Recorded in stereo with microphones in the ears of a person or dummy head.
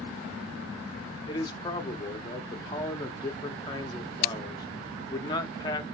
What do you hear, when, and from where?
1.3 s a man speaking: 25° left (ahead or behind), 0.7 m